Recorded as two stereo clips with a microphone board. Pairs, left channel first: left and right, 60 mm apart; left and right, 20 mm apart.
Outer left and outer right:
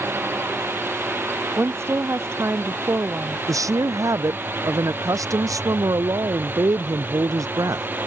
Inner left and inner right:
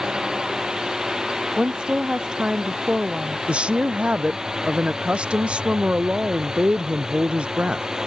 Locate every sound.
0.0 s a drone: 40° right (ahead or behind); by 8.1 s 35° right (ahead or behind)
1.6 s a woman speaking: 50° right (ahead or behind)
3.5 s a woman speaking: 75° right (ahead or behind)